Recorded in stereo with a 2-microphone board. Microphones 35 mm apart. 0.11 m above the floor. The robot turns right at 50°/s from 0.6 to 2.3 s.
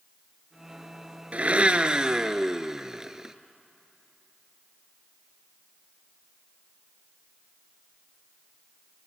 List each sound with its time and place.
1.3 s a blender: 75° right, 0.9 m; by 3.4 s 25° right, 0.9 m